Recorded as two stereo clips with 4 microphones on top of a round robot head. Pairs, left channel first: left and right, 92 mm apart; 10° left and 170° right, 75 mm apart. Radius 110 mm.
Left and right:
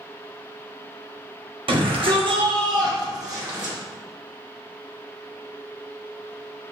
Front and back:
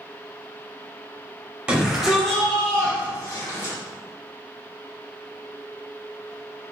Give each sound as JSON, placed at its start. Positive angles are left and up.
{"t": 1.7, "sound": "a shout", "azimuth_deg": -95, "distance_m": 2.5}